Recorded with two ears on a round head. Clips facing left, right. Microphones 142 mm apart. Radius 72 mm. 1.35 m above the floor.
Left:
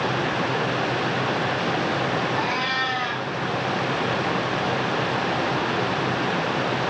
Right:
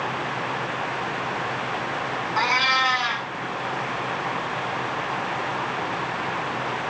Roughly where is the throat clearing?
I don't hear throat clearing.